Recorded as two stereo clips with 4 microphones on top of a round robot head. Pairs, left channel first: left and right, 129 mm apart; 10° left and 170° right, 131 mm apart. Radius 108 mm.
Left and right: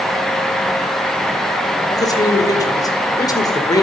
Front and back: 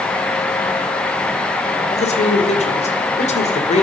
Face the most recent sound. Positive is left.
turn(degrees=30)